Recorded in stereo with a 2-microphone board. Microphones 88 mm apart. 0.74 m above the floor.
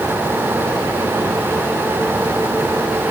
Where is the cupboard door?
I don't hear a cupboard door.